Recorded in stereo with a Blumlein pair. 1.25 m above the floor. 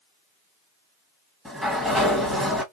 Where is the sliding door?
Straight ahead, 1.2 m.